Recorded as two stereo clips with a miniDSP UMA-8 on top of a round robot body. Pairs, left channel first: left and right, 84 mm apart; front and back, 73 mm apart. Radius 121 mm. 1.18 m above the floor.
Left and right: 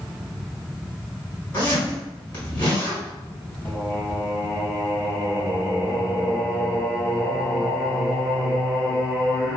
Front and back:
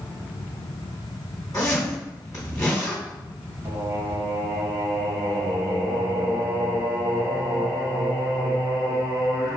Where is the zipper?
50° left, 1.5 m.